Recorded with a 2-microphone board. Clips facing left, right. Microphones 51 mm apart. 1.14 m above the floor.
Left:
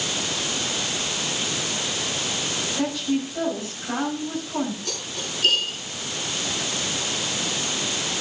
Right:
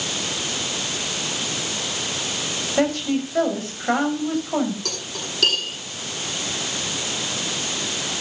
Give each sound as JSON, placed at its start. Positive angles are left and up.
{"t": 2.8, "sound": "a woman speaking", "side_deg": -65, "distance_m": 7.0}
{"t": 4.8, "sound": "cutlery clinking", "side_deg": -80, "distance_m": 9.0}